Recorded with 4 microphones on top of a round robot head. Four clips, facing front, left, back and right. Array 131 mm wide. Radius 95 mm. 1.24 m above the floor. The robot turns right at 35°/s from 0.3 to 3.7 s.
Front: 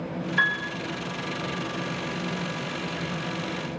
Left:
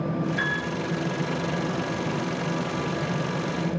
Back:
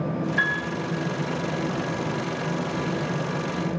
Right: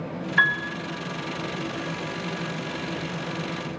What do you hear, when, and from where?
0.4 s a piano: 75° right, 3 m; by 0.7 s 65° right, 3 m